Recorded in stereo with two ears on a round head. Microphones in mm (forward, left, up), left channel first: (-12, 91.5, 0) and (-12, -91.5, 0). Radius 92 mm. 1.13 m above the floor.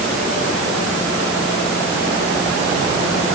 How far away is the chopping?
No chopping in this recording.